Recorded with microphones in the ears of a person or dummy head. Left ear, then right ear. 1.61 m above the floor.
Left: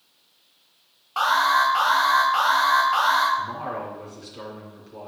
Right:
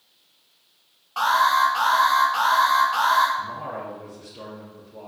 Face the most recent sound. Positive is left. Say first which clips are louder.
# left 1 dB
turn(degrees=80)